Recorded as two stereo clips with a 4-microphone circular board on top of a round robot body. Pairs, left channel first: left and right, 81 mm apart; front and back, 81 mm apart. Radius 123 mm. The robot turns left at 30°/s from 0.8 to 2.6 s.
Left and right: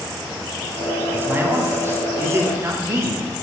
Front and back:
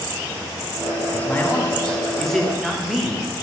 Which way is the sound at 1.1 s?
45° right.